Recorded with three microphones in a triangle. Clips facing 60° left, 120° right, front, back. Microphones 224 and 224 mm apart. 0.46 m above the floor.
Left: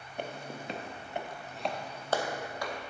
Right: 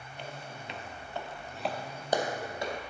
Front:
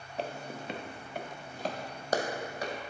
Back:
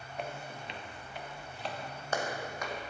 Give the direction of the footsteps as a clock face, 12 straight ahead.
10 o'clock.